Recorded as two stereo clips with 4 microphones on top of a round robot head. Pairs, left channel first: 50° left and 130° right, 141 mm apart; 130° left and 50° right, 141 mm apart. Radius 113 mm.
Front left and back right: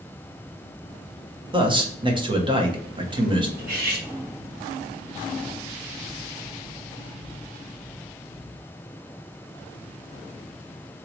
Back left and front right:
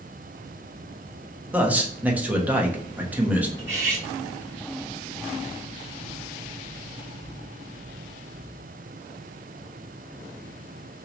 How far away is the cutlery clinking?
About 1.5 m.